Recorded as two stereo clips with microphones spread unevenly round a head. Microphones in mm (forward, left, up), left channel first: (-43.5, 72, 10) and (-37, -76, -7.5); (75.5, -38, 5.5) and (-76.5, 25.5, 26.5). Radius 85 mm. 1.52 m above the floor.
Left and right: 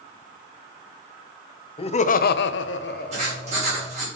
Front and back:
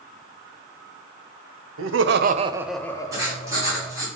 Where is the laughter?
150° left, 0.7 m; by 4.0 s 25° left, 1.4 m.